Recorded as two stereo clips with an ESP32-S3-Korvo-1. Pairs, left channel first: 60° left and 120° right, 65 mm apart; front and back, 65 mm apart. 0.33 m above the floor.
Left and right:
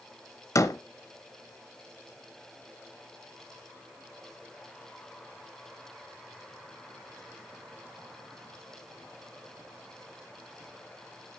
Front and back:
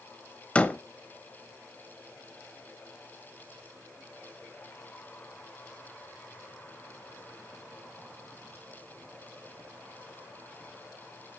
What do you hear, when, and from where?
0.6 s a door slam: 65° left, 0.9 m